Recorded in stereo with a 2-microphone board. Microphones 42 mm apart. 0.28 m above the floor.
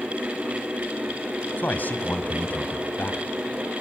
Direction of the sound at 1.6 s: 45° left (ahead or behind).